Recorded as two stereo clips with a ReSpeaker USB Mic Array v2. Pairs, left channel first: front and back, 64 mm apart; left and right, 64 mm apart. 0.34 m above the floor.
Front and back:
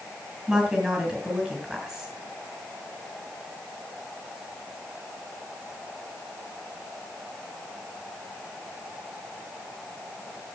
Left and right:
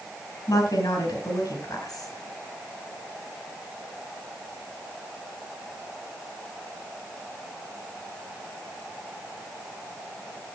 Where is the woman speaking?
105° left, 5 m.